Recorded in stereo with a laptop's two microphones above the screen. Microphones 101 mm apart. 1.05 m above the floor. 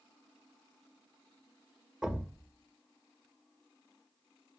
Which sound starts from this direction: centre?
A thud, at 2.0 s.